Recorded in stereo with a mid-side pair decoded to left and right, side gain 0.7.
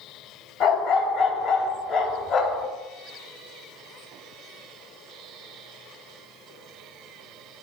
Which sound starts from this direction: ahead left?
A dog barking, at 0.6 s.